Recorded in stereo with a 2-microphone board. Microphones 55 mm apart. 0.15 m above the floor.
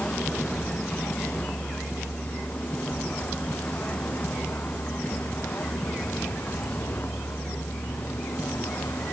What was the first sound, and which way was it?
A vehicle, 20° left (ahead or behind).